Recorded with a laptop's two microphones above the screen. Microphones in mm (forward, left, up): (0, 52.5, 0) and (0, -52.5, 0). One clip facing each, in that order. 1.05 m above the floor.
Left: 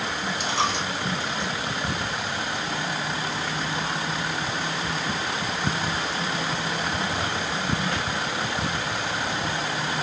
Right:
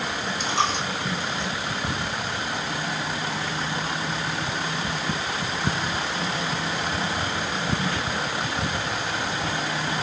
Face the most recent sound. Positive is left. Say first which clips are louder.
# right 1 dB
turn(degrees=5)  # may be behind; listen again after turning